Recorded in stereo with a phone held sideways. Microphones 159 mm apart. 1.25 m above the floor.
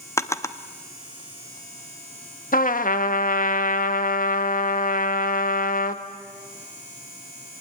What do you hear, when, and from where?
0.2 s a drawer: 15° left (ahead or behind), 0.9 m
2.5 s a trumpet: 60° left (ahead or behind), 1.2 m